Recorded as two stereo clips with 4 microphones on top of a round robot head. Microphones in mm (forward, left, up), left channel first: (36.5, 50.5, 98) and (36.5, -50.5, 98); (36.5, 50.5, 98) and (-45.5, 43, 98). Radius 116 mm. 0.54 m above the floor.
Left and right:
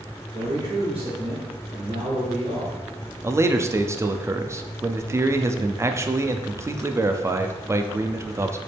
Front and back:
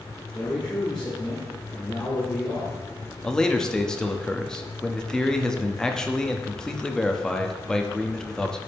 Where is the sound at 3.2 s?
70° right, 0.7 m.